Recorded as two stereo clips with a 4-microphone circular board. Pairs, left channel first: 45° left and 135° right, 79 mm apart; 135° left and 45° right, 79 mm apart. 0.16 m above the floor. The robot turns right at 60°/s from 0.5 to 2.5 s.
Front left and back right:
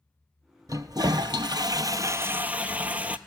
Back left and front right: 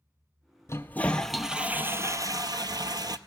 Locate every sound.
0.7 s a toilet flushing: 175° right, 0.5 m; by 3.2 s 65° right, 0.5 m